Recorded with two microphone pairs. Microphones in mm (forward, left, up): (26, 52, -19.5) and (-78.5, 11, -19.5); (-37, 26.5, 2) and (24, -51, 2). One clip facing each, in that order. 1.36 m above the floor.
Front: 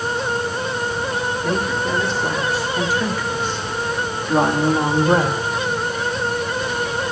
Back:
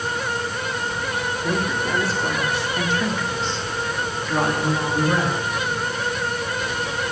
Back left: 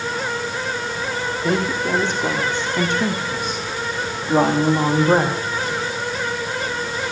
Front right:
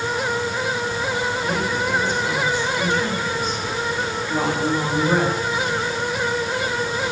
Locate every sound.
1.4 s a woman speaking: 120° left, 4.5 m; by 5.4 s 70° left, 3 m